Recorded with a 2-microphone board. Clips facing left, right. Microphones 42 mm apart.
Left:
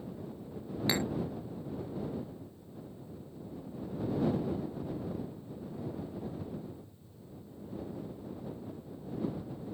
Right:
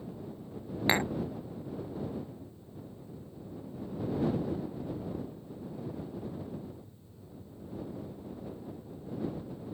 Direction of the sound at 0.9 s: 40° right (ahead or behind).